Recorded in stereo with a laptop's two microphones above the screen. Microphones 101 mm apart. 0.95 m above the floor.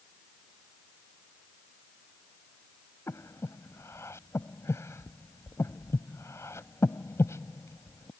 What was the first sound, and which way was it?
Breathing, 30° left (ahead or behind).